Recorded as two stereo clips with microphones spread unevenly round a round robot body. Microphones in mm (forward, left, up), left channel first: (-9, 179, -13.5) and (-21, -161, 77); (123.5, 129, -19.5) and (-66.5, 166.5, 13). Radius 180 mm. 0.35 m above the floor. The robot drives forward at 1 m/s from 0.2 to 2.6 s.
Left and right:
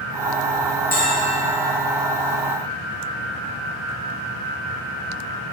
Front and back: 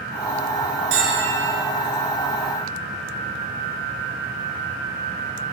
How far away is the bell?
About 4.5 m.